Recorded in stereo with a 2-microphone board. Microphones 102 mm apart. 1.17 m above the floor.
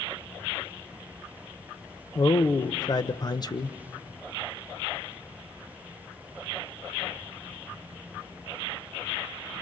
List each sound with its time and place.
2.1 s a man speaking: 40° left (ahead or behind), 0.8 m